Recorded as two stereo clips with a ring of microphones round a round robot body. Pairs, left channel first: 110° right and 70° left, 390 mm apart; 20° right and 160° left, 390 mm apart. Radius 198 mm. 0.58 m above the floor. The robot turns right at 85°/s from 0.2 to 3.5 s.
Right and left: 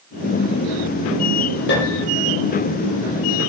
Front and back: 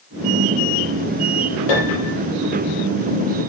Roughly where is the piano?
Ahead right.